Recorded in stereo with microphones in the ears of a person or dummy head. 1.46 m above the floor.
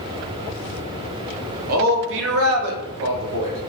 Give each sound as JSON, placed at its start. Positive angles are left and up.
{"t": 1.7, "sound": "a man speaking", "side_deg": -45, "distance_m": 0.9}